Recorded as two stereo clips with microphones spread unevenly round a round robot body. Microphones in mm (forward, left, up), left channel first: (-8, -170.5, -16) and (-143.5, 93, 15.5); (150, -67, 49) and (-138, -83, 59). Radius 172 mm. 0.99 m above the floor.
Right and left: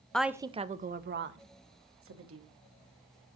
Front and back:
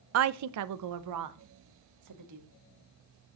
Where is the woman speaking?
145° right, 0.5 m; by 2.5 s 160° left, 1.6 m.